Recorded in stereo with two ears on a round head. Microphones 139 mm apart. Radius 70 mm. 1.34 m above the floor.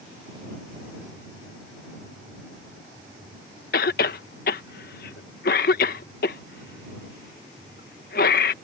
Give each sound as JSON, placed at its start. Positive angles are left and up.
{"t": 3.7, "sound": "a cough", "side_deg": 70}